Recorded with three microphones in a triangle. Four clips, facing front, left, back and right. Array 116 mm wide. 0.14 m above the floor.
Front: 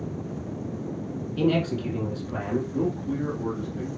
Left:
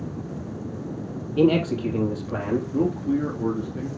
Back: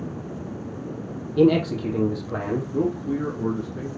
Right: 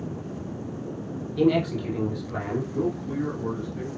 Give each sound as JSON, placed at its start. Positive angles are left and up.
{"t": 1.4, "sound": "a man speaking", "azimuth_deg": 140, "distance_m": 3.0}
{"t": 2.7, "sound": "a man speaking", "azimuth_deg": 135, "distance_m": 2.5}